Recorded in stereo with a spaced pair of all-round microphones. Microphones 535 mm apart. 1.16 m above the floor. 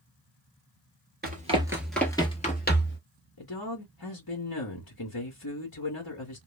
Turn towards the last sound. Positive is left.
turn(degrees=45)  # may be behind; listen again after turning